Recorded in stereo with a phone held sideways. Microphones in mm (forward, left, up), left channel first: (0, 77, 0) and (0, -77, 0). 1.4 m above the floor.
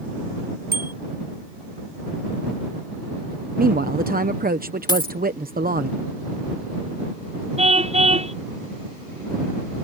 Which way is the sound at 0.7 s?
85° right.